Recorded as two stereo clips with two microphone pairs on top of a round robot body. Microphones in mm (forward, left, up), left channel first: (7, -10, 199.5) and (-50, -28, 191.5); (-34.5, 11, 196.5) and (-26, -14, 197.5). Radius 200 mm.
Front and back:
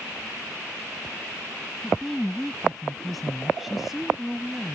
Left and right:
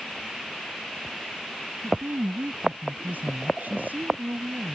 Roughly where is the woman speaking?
Right.